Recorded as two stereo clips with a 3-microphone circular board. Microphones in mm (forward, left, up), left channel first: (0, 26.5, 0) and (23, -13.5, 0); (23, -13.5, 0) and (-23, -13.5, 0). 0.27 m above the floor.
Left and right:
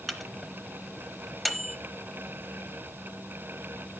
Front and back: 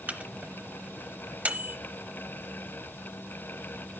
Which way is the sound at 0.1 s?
150° right.